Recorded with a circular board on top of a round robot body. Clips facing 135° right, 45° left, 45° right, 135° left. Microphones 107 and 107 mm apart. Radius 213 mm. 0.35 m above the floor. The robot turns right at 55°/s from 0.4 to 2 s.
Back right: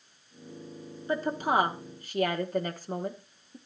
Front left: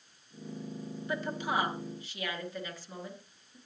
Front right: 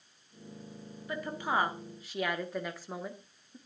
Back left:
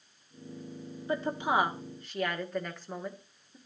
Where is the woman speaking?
Straight behind, 1.4 m; by 3.6 s 130° right, 1.4 m.